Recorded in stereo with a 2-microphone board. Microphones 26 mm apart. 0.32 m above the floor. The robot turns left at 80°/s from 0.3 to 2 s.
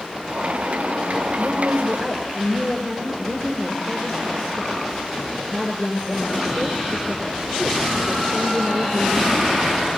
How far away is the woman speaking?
About 5.5 m.